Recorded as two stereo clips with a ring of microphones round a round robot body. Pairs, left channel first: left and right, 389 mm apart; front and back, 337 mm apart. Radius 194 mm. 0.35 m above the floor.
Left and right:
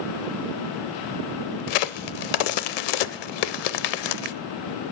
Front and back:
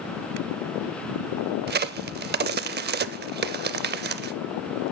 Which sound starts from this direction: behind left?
A crack, at 1.7 s.